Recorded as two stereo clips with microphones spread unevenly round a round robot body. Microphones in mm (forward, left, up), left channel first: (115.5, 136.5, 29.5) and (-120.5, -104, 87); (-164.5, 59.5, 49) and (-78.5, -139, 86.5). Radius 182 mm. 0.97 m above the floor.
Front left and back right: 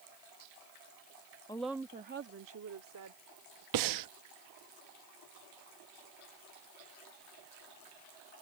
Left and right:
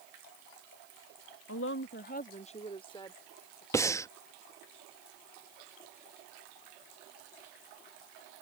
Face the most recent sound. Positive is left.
turn(degrees=-170)